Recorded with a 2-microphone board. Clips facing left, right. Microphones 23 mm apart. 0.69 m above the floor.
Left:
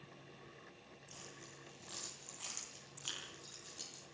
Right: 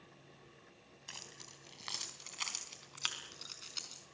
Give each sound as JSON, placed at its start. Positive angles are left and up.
{"t": 1.1, "sound": "keys jangling", "side_deg": -75, "distance_m": 3.5}